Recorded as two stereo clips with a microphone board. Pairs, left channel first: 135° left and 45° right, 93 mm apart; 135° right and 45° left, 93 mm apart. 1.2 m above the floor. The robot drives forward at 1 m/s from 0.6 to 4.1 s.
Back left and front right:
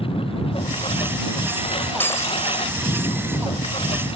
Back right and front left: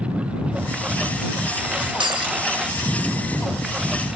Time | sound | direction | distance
0.0 | a lawn mower | 125° left | ?
2.0 | breaking glass | 70° left | ?